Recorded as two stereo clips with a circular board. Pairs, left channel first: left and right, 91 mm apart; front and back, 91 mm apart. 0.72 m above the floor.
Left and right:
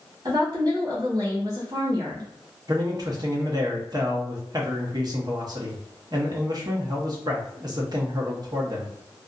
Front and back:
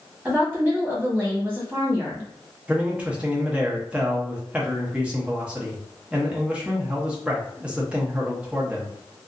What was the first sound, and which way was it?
A woman speaking, 110° right.